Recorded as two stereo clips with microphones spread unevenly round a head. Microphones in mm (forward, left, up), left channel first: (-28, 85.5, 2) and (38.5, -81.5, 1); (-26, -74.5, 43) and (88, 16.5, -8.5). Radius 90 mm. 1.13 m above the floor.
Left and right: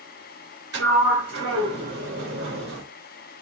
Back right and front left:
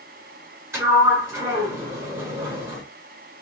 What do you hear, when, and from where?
0.7 s a sliding door: 40° right, 1.9 m